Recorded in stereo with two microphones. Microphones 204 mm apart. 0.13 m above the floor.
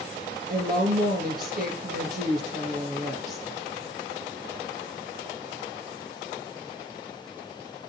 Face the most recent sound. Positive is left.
turn(degrees=-45)  # may be behind; listen again after turning